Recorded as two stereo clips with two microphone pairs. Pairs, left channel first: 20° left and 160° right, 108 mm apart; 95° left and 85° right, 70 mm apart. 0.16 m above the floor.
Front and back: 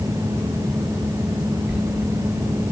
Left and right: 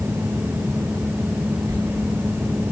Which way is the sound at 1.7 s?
85° right.